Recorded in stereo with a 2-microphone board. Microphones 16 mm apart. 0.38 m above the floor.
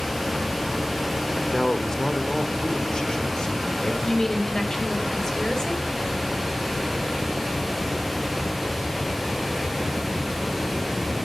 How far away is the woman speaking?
About 2.0 m.